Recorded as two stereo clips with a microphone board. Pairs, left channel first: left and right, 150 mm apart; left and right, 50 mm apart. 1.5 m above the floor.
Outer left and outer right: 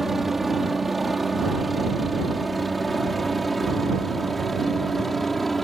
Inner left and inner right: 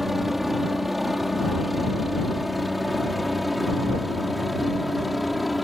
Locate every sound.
0.0 s a helicopter: centre (ahead or behind)